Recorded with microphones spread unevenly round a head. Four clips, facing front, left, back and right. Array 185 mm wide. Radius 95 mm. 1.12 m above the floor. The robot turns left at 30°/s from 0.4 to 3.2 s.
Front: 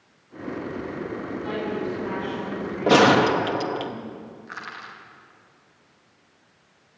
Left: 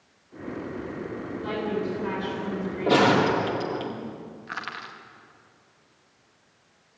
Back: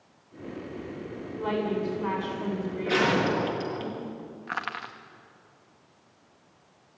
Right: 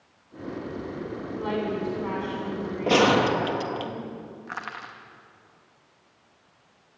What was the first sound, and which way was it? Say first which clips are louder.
A woman speaking: right 1 dB, back 2 dB; 145° right.